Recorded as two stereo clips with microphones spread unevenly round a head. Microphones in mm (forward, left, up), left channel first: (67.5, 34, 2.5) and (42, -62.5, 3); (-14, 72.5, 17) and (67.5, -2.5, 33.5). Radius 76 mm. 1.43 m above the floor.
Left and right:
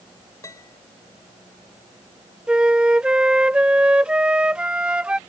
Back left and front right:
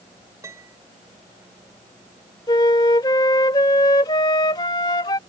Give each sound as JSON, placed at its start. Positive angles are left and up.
{"t": 0.4, "sound": "a piano", "azimuth_deg": 20}
{"t": 2.5, "sound": "a flute", "azimuth_deg": -175}